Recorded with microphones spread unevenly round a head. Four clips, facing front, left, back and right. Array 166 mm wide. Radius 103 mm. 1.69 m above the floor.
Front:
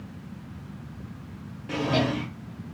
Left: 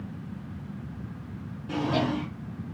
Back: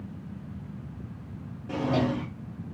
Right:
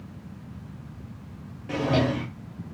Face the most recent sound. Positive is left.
turn(degrees=-115)